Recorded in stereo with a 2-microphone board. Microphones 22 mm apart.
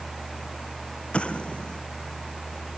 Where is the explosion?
85° left.